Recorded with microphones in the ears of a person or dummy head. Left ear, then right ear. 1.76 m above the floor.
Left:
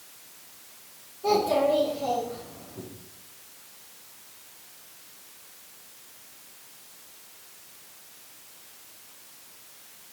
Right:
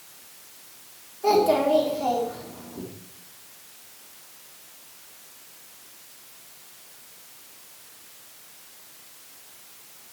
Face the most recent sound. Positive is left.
turn(degrees=-35)  # may be behind; listen again after turning